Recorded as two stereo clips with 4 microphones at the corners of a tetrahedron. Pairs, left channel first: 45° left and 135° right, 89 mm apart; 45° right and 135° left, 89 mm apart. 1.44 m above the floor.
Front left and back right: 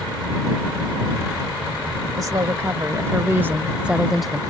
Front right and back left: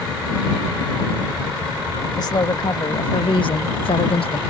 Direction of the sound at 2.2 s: 85° right.